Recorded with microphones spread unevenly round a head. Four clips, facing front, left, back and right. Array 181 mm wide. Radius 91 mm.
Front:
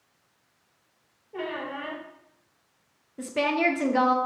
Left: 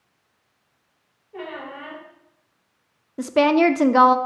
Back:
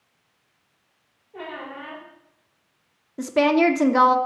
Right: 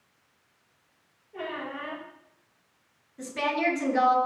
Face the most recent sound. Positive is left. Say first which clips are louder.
# left 12 dB, back 7 dB
turn(degrees=110)